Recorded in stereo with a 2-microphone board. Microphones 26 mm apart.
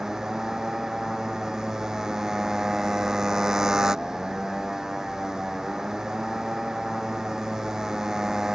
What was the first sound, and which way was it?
A motorcycle, 20° right (ahead or behind).